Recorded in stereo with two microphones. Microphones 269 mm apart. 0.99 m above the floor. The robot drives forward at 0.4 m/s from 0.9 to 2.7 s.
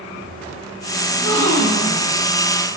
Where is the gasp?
75° left (ahead or behind), 2.5 m; by 2.2 s 80° left, 2.5 m.